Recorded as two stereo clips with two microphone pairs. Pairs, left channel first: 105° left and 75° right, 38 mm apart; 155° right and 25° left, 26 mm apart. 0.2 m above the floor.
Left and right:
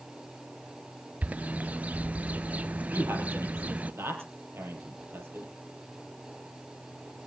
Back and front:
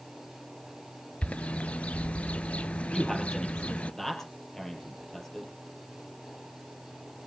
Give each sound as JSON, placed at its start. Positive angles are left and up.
{"t": 1.2, "sound": "a bird", "azimuth_deg": -120, "distance_m": 0.5}
{"t": 2.9, "sound": "a man speaking", "azimuth_deg": -80, "distance_m": 5.0}